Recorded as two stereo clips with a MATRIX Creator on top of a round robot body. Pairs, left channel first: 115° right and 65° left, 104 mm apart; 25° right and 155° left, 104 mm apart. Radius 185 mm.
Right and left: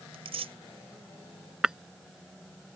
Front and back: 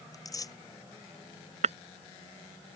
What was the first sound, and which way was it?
Tearing paper, 35° left.